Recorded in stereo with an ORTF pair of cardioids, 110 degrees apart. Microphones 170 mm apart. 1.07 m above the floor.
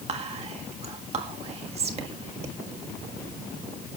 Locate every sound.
0.1 s whispering: 40° right, 1.5 m